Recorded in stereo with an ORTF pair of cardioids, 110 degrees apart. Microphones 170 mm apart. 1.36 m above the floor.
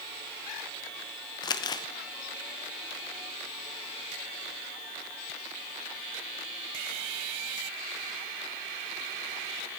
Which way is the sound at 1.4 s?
25° left.